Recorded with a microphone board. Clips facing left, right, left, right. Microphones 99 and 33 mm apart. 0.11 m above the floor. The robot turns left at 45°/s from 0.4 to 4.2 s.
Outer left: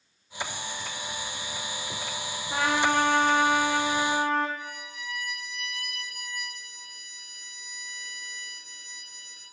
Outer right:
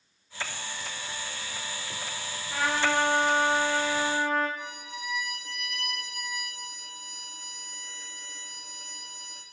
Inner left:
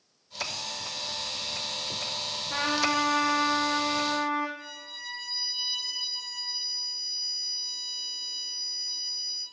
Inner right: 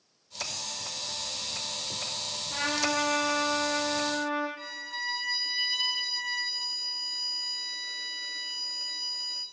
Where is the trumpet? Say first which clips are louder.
Outer left 2 dB, inner left 2 dB; 145° left, 2.5 m; by 4.5 s 70° left, 2.5 m.